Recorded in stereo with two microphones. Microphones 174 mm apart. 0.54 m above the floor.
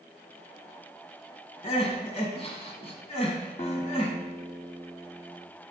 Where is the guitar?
40° left (ahead or behind), 1.0 m.